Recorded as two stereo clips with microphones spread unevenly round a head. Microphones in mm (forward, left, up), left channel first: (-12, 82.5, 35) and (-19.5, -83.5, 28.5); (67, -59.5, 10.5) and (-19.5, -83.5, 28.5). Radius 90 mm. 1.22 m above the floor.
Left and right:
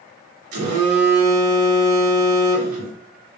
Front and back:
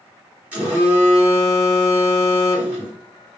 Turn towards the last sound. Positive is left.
turn(degrees=-90)